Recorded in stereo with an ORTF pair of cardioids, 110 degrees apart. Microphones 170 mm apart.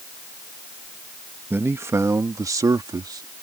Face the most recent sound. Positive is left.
turn(degrees=-25)